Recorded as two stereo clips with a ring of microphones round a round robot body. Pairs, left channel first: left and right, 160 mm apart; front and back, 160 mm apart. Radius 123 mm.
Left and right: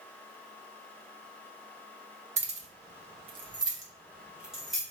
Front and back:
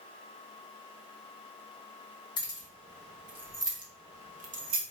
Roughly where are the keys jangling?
Ahead right.